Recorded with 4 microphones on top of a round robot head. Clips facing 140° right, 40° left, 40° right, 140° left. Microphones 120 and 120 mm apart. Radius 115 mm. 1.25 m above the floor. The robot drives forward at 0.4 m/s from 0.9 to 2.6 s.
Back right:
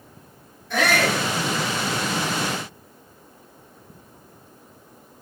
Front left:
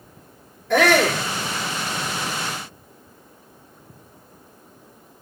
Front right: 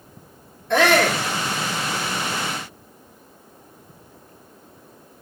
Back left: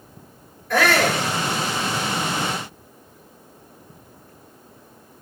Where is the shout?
25° left, 3.5 m.